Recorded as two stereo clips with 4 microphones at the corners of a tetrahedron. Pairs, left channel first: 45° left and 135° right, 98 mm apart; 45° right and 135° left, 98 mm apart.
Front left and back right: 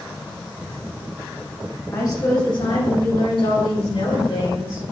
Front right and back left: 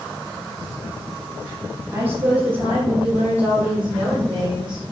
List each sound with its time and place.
1.9 s a woman speaking: 80° left, 2.5 m; by 4.8 s 50° left, 5.5 m